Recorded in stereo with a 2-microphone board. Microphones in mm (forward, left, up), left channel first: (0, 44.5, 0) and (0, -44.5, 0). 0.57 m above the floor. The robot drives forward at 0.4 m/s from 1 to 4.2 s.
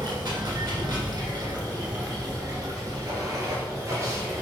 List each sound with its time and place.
0.0 s running water: 50° right (ahead or behind), 3 m; by 4.4 s 35° right (ahead or behind), 3.5 m